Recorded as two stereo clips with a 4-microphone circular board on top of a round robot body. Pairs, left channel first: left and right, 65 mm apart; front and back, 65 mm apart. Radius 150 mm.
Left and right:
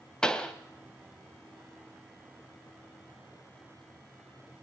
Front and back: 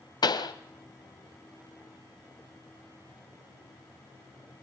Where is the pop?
10° left, 1.4 m.